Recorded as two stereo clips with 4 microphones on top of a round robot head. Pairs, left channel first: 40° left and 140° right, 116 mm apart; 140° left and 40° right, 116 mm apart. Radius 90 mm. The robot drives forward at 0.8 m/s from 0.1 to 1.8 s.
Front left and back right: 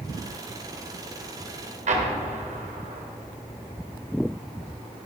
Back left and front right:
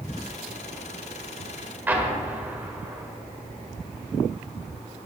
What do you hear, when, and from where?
1.9 s an explosion: 115° right, 1.9 m